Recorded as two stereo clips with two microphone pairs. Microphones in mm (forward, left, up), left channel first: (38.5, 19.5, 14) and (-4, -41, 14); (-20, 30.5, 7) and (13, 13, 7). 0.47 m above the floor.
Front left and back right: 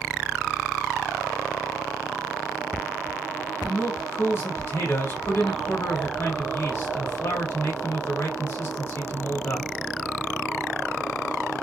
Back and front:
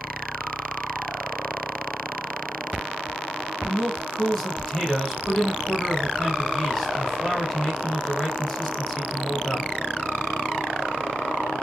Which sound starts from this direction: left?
A man speaking, at 3.6 s.